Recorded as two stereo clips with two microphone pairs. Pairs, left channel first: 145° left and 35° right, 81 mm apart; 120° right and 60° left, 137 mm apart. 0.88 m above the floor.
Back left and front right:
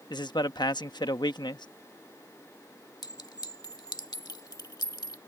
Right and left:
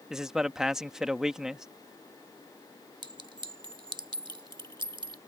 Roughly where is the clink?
Behind left.